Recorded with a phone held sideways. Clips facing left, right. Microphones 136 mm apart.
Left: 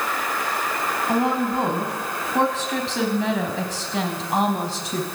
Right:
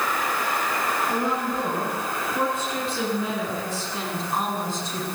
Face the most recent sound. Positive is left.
turn(degrees=70)  # may be behind; listen again after turning